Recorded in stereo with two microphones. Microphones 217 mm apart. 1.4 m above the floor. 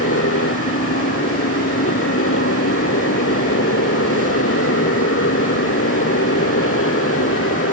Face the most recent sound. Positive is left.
turn(degrees=85)